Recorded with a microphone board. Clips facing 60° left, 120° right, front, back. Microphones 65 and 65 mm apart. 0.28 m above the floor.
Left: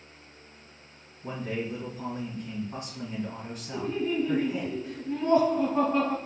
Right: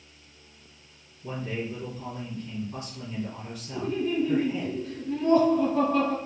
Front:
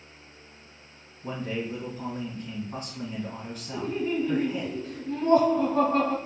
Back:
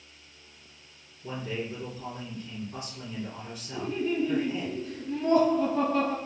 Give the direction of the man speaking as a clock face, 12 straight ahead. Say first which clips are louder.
Even, front 2 dB; 11 o'clock.